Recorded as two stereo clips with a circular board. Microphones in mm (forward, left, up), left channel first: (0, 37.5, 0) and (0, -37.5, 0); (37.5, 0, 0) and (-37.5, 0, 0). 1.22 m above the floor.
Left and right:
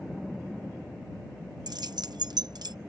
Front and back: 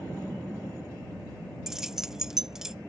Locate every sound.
1.7 s keys jangling: 100° right